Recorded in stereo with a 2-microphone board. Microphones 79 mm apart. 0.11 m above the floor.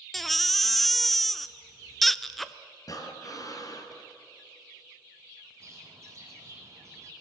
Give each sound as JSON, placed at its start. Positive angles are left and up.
{"t": 0.1, "sound": "a baby crying", "side_deg": 0, "distance_m": 0.6}
{"t": 2.9, "sound": "breathing", "side_deg": 50, "distance_m": 2.0}
{"t": 5.6, "sound": "a bird", "side_deg": -35, "distance_m": 5.0}